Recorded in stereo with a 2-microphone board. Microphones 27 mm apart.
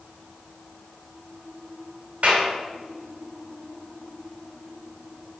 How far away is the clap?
About 2.5 m.